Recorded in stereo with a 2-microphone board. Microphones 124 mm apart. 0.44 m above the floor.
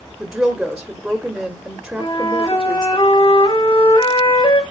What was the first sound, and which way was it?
A woman speaking, 5° right (ahead or behind).